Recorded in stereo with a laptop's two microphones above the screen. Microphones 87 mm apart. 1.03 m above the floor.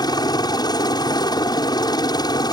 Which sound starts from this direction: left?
A helicopter, at 0.0 s.